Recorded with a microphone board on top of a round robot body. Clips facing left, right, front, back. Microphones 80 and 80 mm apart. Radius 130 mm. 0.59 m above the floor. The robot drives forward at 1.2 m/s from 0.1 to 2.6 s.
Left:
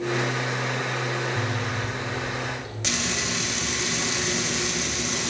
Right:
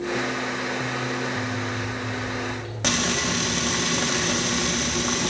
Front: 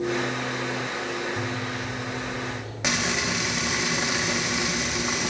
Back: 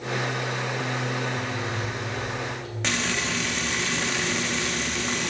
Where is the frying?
75° right, 0.7 m.